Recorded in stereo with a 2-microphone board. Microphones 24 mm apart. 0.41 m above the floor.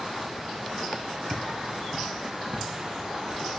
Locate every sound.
1.3 s footsteps: 40° right (ahead or behind), 0.6 m